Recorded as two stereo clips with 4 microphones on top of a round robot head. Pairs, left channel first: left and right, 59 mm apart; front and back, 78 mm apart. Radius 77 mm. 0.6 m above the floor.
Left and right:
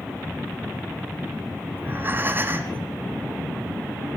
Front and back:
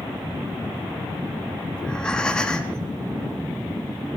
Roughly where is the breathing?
Right.